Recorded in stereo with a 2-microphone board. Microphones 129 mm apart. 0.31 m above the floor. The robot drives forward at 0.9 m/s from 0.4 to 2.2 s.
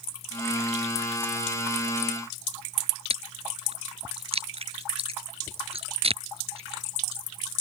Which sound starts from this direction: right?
Chewing, at 3.1 s.